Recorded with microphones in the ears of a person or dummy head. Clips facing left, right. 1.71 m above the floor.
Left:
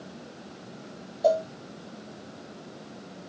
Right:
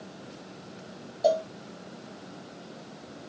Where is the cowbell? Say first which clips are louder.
Left 1 dB; 5° right (ahead or behind), 0.7 m.